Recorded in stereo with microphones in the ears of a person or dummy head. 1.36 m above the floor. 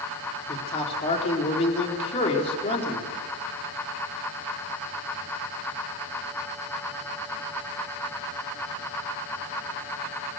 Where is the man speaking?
35° left (ahead or behind), 4 m.